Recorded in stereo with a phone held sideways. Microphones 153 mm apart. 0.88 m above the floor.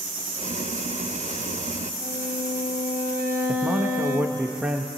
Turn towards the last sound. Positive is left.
turn(degrees=-10)  # may be behind; listen again after turning